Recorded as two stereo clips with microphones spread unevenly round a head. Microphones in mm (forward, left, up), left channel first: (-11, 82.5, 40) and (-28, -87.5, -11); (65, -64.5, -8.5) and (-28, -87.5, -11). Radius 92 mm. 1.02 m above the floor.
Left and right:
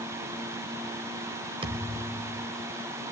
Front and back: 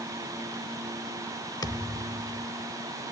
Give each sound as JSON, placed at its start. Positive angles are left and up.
{"t": 1.6, "sound": "a thud", "azimuth_deg": -25, "distance_m": 1.1}